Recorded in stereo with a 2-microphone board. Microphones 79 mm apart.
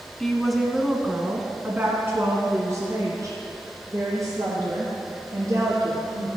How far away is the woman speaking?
About 1.3 m.